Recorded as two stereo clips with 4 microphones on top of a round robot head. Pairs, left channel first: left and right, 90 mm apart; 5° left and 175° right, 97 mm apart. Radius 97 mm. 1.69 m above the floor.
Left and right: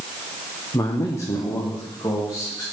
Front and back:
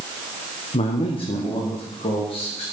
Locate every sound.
0.7 s a man speaking: 30° left, 1.2 m; by 2.6 s 40° left, 3.5 m